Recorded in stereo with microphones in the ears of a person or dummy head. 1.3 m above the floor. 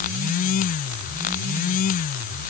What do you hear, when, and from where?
Only background noise.